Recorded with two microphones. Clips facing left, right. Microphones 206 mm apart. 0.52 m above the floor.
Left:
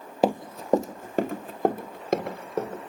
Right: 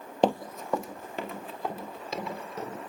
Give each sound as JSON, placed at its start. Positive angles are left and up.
{"t": 0.2, "sound": "running footsteps", "side_deg": 5, "distance_m": 0.7}